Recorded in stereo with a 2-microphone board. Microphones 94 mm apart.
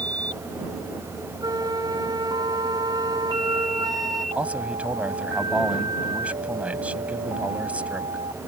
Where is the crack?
I don't hear a crack.